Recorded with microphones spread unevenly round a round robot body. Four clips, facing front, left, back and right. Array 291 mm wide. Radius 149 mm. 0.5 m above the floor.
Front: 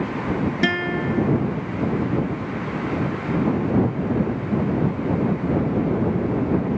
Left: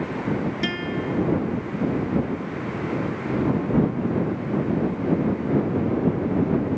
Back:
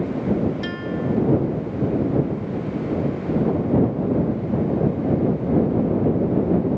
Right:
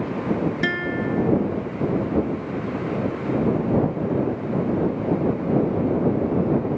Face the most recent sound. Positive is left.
turn(degrees=-5)